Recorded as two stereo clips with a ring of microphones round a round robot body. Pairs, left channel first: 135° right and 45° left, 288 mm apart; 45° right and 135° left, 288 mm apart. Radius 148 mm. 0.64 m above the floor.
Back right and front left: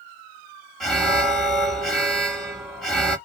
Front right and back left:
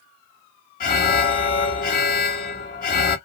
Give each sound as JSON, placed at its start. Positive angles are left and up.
{"t": 0.8, "sound": "an alarm", "azimuth_deg": -45, "distance_m": 1.2}